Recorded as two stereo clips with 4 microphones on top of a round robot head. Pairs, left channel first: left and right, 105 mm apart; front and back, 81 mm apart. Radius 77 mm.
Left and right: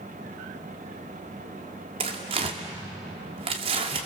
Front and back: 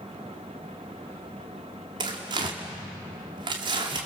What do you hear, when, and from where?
2.0 s tearing paper: 135° right, 2 m